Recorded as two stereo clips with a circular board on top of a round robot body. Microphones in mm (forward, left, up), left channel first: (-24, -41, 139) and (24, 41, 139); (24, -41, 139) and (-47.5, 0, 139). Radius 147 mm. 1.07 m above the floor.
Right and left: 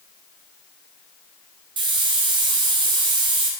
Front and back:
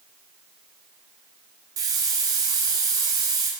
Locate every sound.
1.8 s a hiss: 100° left, 1.1 m